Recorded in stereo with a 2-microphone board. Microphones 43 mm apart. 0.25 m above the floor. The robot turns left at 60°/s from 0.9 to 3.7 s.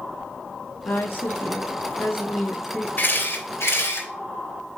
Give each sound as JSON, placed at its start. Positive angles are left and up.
{"t": 0.8, "sound": "a woman speaking", "azimuth_deg": 135, "distance_m": 4.0}
{"t": 3.0, "sound": "a camera shutter", "side_deg": 45, "distance_m": 3.5}